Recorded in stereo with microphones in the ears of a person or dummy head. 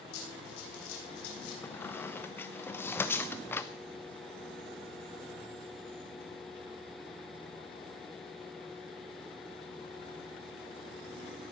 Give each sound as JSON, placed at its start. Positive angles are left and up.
{"t": 0.1, "sound": "running footsteps", "side_deg": 65, "distance_m": 3.5}
{"t": 1.6, "sound": "a squeak", "side_deg": 15, "distance_m": 0.6}